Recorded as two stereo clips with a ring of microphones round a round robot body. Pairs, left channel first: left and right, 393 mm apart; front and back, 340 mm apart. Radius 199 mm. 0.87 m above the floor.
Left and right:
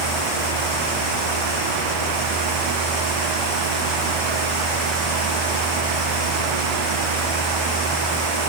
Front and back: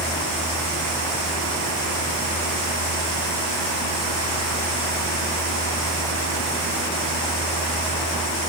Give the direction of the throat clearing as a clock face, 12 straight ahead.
I don't hear throat clearing.